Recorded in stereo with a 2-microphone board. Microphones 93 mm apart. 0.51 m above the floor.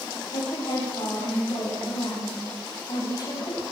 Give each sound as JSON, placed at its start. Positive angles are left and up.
{"t": 0.3, "sound": "a woman speaking", "side_deg": 70, "distance_m": 3.5}